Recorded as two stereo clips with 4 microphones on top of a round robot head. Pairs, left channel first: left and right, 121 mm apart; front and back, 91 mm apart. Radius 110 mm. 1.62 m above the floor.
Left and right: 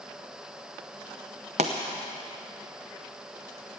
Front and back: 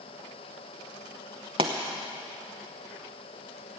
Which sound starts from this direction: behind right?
A pop, at 1.6 s.